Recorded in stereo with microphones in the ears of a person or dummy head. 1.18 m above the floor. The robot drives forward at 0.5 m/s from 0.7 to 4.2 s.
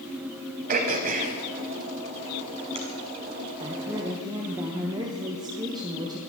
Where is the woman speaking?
25° right (ahead or behind), 1.0 m; by 6.2 s 20° right (ahead or behind), 1.2 m.